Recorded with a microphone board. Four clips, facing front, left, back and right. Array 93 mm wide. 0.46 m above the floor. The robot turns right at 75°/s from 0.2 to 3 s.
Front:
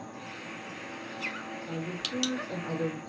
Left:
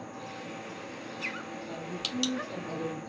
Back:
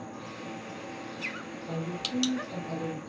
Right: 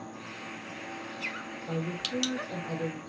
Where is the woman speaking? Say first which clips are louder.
Right 7 dB, back 3 dB; 85° right, 5 m; by 3.0 s 15° left, 5 m.